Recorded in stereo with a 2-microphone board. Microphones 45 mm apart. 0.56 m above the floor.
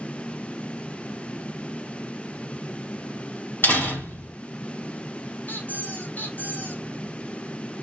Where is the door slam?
50° left (ahead or behind), 1.7 m.